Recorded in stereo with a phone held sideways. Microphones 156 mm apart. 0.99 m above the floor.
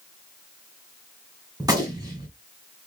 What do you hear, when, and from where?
1.6 s a gunshot: 25° right (ahead or behind), 2 m